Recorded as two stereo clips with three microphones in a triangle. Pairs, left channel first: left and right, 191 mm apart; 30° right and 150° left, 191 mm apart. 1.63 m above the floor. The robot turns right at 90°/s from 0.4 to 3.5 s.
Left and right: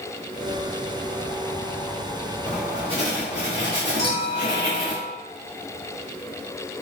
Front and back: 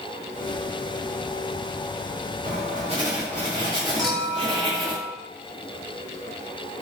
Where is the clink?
60° left, 1.8 m.